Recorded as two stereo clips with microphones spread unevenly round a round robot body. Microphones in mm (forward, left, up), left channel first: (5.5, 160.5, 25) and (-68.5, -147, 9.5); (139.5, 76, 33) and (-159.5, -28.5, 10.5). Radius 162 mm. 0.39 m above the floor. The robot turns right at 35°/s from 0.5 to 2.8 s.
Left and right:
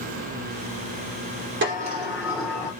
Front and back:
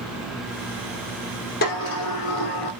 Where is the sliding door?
45° right, 4 m; by 2.7 s 5° right, 4 m.